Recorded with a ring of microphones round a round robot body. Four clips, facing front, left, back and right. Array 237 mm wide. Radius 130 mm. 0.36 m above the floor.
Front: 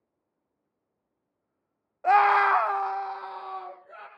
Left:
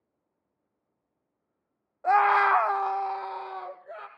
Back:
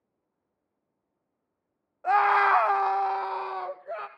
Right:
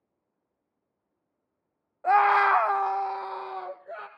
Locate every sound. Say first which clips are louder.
2.0 s a scream: right 1 dB, front 2 dB; 10° right, 0.8 m; by 4.1 s straight behind, 1.6 m